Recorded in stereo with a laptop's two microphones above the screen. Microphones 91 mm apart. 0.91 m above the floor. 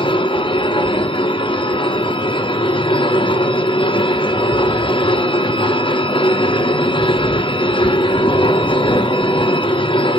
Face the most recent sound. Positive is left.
turn(degrees=70)  # may be behind; listen again after turning